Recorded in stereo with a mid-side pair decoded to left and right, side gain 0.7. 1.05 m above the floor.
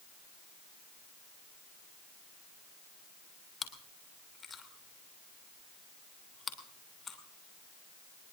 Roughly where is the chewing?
Ahead left.